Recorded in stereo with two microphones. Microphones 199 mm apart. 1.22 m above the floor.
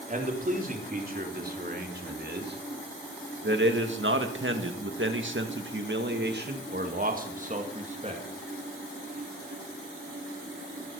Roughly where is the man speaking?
Right.